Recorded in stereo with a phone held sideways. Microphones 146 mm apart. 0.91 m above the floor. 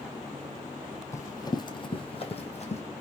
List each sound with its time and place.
1.1 s running footsteps: 20° left (ahead or behind), 1.1 m; by 2.8 s 50° left (ahead or behind), 1.4 m